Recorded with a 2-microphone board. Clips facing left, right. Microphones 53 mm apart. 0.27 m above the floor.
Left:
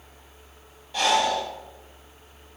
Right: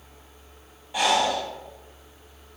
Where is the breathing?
15° right (ahead or behind), 0.6 m.